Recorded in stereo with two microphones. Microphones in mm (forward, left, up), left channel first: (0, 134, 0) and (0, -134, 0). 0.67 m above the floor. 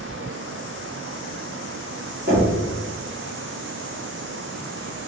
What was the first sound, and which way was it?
Knocking, 35° right (ahead or behind).